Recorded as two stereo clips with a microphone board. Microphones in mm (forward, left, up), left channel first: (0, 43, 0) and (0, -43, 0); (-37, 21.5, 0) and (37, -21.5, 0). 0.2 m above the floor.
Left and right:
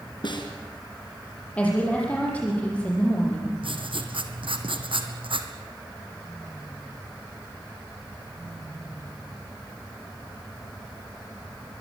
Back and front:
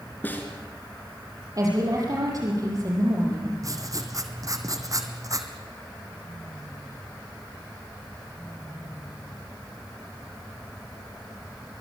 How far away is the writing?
About 1.8 m.